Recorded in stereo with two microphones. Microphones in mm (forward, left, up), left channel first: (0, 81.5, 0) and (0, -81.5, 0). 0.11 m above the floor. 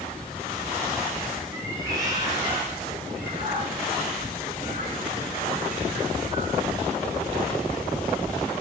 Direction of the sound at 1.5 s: 15° right (ahead or behind).